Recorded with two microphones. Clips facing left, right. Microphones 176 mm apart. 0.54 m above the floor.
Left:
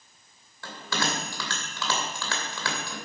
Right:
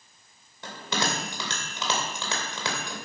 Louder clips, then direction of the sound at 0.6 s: Right 1 dB; 20° right (ahead or behind).